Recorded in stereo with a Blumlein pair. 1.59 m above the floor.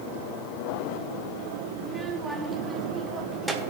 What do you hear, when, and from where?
1.8 s a child speaking: 10° right, 1.3 m